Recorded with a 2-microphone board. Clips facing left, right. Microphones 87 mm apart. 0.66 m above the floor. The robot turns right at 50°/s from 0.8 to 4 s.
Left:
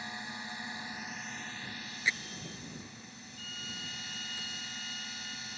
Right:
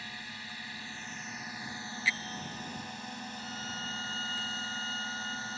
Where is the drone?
160° left; by 5.6 s 40° right.